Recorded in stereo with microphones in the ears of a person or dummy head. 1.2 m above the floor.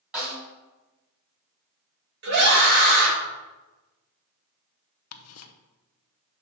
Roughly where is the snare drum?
Centre.